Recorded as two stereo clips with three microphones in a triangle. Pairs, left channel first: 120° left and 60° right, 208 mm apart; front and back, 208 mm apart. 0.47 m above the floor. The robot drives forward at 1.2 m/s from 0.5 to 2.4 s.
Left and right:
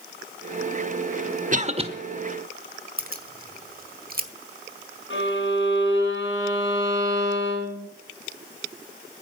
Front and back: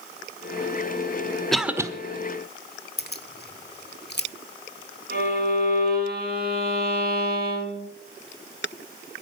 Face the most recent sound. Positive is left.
turn(degrees=140)